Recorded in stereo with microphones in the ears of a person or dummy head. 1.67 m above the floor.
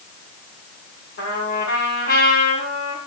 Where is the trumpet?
50° left (ahead or behind), 6.5 m.